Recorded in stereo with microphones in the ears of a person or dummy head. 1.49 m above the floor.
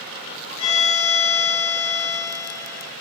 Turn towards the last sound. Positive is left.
turn(degrees=80)